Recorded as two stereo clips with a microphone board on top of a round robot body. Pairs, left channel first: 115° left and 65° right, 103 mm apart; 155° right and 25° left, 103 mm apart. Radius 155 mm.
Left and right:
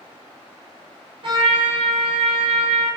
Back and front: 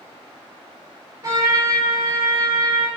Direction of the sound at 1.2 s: 30° right.